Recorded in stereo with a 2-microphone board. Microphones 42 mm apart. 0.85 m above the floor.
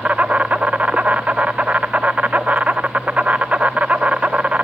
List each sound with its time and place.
0.0 s an insect: 35° right (ahead or behind), 0.8 m